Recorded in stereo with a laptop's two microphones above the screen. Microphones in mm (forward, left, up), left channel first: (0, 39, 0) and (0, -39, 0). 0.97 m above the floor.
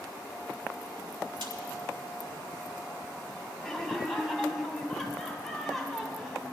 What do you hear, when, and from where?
1.4 s a snare drum: 75° right (ahead or behind), 2.5 m
3.6 s laughter: centre (ahead or behind), 3 m